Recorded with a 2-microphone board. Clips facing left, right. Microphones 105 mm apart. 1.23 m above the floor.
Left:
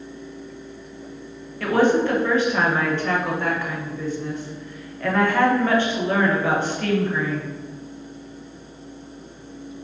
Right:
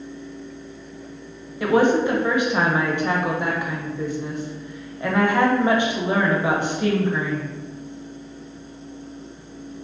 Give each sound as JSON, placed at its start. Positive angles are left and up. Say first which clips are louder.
{"t": 1.6, "sound": "a woman speaking", "louder": "right 1 dB", "side_deg": -15, "distance_m": 0.8}